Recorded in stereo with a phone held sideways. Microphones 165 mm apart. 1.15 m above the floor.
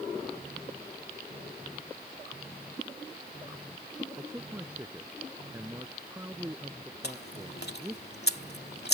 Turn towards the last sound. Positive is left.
turn(degrees=75)  # may be behind; listen again after turning